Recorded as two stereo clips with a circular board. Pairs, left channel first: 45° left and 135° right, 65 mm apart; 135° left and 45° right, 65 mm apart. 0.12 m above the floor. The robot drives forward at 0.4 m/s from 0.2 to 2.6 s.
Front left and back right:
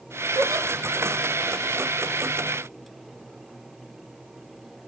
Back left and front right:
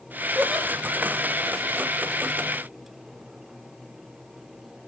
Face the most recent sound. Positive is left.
turn(degrees=-140)